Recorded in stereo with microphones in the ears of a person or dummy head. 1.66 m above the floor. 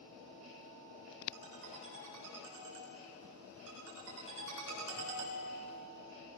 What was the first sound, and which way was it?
A ringtone, 65° right (ahead or behind).